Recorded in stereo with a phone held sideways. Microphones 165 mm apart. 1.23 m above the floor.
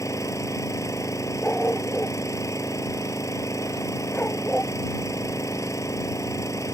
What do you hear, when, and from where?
0.0 s an engine running: 20° left (ahead or behind)
1.4 s a dog barking: 10° left (ahead or behind)